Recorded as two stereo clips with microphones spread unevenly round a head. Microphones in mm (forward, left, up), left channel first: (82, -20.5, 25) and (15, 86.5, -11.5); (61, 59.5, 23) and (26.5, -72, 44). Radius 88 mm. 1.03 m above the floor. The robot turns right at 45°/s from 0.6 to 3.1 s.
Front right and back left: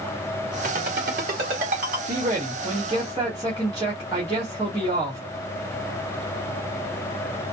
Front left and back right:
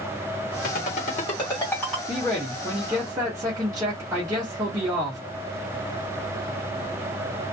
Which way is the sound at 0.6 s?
105° left.